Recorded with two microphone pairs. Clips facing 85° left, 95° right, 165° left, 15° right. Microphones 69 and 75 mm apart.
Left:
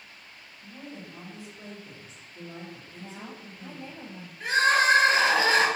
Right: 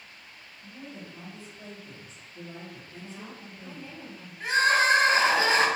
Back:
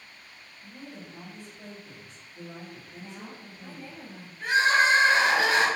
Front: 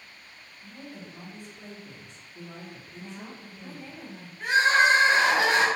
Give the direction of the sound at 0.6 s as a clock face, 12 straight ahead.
11 o'clock.